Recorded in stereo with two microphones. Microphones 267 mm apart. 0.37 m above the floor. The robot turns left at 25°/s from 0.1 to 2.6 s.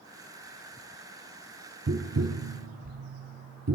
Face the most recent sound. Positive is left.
turn(degrees=-80)